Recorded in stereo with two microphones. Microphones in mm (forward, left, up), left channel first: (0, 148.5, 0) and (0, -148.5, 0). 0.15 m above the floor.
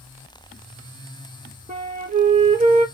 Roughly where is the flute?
Right.